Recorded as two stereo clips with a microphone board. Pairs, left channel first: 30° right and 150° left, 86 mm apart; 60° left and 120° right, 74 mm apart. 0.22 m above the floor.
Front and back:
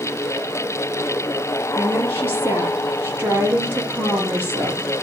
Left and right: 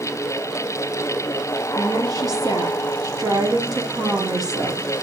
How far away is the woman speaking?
About 6 m.